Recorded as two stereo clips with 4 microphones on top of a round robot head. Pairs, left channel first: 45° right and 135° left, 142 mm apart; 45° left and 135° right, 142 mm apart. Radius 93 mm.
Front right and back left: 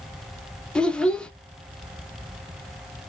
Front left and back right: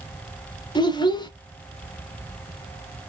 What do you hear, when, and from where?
0.8 s a child speaking: 35° left, 0.8 m